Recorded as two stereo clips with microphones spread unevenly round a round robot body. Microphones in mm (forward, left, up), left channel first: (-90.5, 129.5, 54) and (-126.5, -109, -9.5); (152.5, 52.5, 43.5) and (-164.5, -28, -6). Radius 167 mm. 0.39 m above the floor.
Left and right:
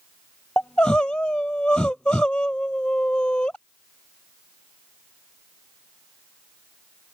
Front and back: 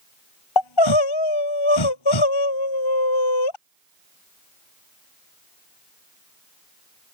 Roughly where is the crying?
Ahead.